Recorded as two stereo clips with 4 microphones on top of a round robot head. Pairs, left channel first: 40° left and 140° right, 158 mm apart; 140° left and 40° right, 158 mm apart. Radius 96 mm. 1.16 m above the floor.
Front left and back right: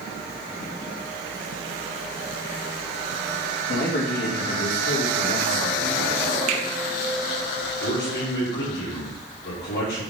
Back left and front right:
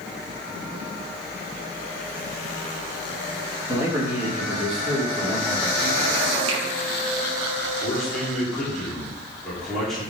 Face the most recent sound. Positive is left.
turn(degrees=55)